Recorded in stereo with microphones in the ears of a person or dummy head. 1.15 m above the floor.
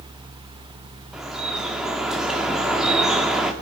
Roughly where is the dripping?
Centre.